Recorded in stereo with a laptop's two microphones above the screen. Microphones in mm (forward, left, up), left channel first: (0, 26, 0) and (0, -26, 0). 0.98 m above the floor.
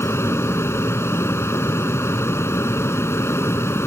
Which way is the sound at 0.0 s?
55° left (ahead or behind).